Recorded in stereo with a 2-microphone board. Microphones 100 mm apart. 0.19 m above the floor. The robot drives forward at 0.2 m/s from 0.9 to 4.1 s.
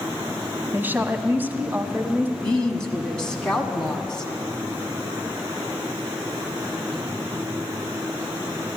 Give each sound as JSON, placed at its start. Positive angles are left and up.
{"t": 0.7, "sound": "a woman speaking", "side_deg": -20, "distance_m": 1.0}
{"t": 2.4, "sound": "a woman speaking", "side_deg": 10, "distance_m": 1.6}